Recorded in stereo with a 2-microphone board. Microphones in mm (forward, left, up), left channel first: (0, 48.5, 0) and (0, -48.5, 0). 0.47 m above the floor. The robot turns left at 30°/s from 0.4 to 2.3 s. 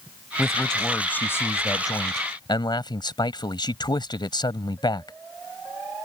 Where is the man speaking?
Straight behind; by 5.2 s 125° left.